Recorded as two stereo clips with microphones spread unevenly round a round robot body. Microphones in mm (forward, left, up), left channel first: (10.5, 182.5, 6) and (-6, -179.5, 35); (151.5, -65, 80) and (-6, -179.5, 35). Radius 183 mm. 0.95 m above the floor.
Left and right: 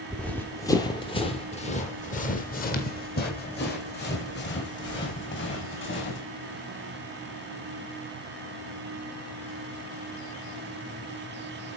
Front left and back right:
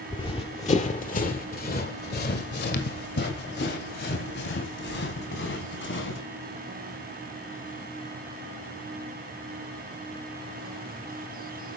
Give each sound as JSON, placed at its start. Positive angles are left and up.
{"t": 0.1, "sound": "running footsteps", "azimuth_deg": -5, "distance_m": 1.3}